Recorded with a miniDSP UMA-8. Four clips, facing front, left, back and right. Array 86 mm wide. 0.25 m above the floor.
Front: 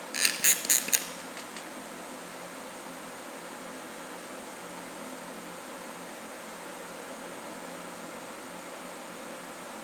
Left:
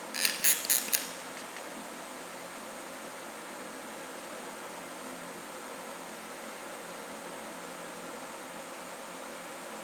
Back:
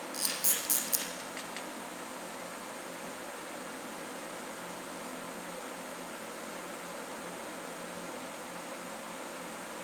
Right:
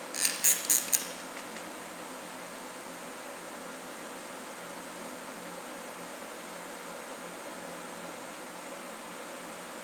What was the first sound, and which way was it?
A camera shutter, 15° left.